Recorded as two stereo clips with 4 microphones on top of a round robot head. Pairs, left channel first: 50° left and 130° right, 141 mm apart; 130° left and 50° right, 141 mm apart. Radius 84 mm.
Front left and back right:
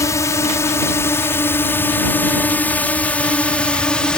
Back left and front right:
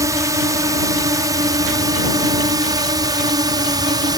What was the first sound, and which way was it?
A drone, 5° right.